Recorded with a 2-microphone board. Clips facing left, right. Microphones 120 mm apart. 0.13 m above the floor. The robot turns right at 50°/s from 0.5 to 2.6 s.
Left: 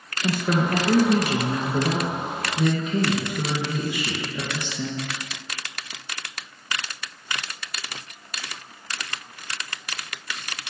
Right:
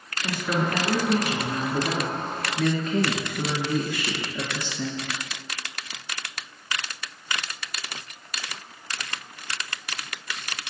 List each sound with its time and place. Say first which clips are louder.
0.2 s a woman speaking: left 3 dB; 50° left, 1.9 m; by 5.1 s 155° left, 1.9 m